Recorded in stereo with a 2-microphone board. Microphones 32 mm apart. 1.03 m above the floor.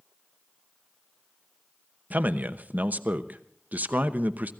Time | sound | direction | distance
2.1 | a man speaking | 60° right (ahead or behind) | 0.9 m